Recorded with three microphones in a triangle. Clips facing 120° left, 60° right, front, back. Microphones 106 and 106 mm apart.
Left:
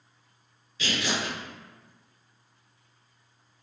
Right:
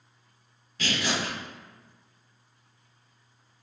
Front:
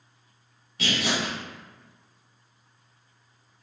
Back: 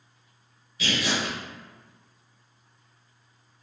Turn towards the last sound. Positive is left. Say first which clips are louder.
# right 1 dB, even
turn(degrees=-20)